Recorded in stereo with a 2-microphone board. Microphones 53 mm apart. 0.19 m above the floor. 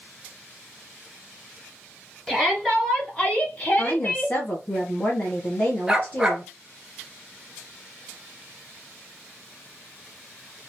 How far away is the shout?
About 1.5 m.